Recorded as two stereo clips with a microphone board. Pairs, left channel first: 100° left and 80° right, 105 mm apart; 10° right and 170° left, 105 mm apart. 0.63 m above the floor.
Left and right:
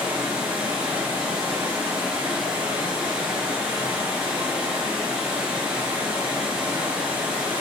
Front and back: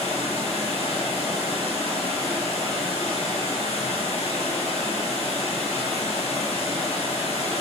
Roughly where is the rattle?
No rattle in this recording.